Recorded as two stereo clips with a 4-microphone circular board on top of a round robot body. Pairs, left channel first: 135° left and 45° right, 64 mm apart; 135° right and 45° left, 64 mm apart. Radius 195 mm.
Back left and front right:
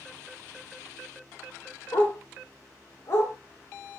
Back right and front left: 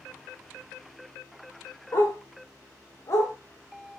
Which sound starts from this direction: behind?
A dog barking, at 1.9 s.